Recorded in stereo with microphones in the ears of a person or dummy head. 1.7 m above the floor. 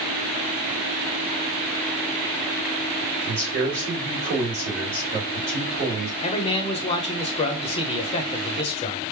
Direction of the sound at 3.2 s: 45° right (ahead or behind).